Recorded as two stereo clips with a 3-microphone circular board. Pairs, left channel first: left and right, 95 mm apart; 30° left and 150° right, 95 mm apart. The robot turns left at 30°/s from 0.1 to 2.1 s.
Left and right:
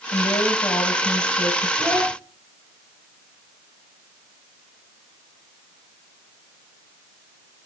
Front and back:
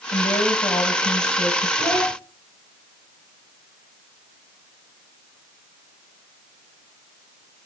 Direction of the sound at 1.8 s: 30° right.